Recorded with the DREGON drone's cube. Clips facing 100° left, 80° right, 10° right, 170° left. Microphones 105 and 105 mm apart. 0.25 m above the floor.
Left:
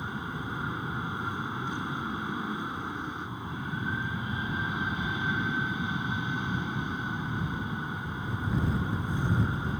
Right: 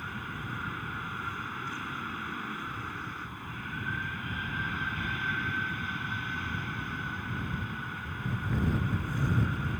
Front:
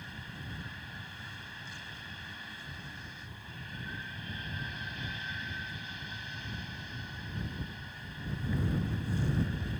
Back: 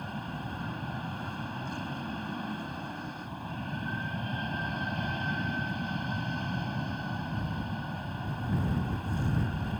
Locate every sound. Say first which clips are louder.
0.0 s an aircraft: left 4 dB, back 9 dB; 165° left